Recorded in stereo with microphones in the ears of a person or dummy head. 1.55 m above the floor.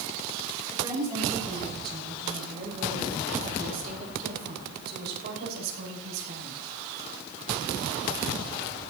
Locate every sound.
0.7 s a woman speaking: 20° right (ahead or behind), 7 m; by 6.6 s 70° right (ahead or behind), 7.5 m